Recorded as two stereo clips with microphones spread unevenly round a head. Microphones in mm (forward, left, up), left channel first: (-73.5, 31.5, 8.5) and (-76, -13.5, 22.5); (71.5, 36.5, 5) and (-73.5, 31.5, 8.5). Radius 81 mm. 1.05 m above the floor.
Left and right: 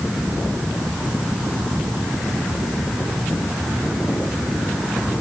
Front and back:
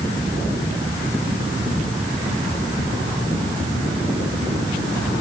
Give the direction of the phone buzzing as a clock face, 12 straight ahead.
No phone buzzing in this recording.